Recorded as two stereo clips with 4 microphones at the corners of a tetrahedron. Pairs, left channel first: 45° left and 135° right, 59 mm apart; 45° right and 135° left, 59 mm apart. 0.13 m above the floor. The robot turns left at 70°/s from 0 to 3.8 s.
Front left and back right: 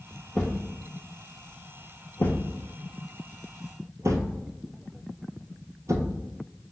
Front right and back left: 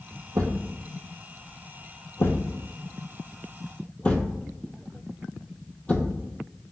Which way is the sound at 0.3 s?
130° left.